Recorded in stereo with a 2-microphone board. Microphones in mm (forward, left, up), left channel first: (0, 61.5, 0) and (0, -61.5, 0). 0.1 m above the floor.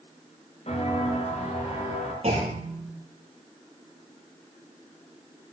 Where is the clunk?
60° right (ahead or behind), 7.5 m.